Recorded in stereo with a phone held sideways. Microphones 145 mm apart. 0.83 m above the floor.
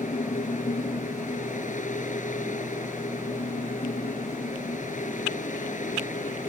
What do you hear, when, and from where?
0.0 s a fan: 70° left (ahead or behind)